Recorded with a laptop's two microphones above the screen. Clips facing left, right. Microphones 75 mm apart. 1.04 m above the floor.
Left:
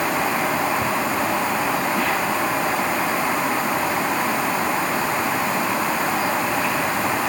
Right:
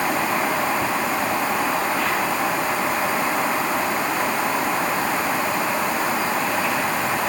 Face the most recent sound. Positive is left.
No sound to turn to.